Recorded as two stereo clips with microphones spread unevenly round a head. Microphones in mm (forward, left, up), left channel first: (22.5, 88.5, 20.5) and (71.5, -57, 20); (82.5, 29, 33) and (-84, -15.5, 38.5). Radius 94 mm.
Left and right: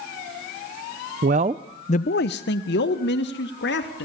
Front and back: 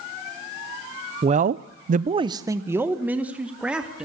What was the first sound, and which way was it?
A man speaking, 110° right.